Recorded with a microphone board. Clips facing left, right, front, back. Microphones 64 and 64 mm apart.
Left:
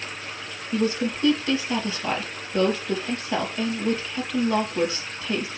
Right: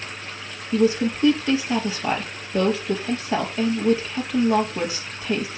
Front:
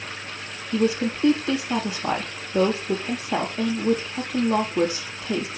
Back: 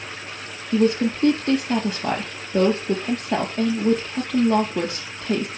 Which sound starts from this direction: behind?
A woman speaking, at 0.7 s.